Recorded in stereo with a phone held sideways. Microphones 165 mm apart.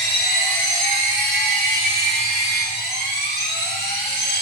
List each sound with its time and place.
0.0 s a machine running: 85° left, 8.5 m